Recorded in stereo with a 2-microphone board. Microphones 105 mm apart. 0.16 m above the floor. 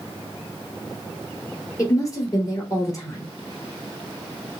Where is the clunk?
No clunk in this recording.